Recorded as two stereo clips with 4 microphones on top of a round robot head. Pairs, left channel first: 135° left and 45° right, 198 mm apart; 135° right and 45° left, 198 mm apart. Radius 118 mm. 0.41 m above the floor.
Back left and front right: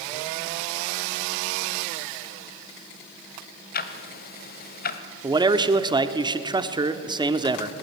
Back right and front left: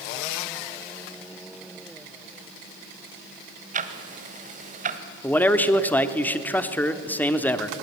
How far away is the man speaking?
About 1.0 m.